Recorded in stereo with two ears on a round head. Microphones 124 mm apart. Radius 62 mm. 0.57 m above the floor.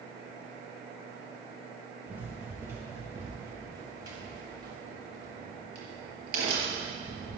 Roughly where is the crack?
Right.